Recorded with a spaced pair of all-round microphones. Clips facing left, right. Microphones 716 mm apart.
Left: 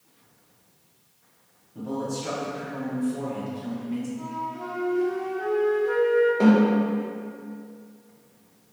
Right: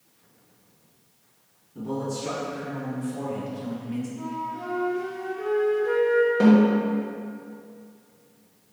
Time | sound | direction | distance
1.8 | a man speaking | 10° left (ahead or behind) | 1.1 m
4.2 | a flute | 50° right (ahead or behind) | 0.7 m
6.4 | a snare drum | 50° right (ahead or behind) | 1.0 m